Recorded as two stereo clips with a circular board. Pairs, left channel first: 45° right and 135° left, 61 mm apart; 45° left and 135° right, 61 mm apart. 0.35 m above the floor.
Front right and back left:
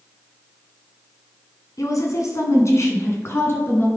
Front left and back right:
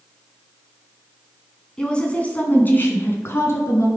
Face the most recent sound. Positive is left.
turn(degrees=5)